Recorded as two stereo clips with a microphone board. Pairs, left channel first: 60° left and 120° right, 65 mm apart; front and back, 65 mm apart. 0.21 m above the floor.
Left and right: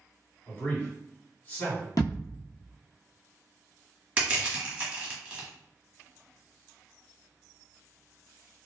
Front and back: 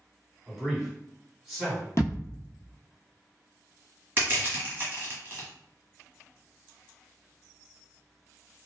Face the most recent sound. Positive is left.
turn(degrees=-170)